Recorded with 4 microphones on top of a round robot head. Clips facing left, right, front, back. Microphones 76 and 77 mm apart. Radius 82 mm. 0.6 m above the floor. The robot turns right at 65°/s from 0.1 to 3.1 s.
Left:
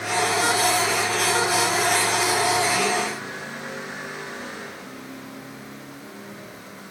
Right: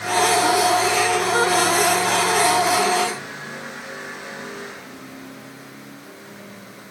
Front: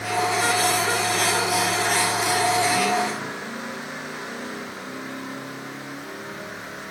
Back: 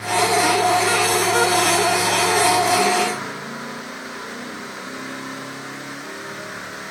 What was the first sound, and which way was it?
Only background noise.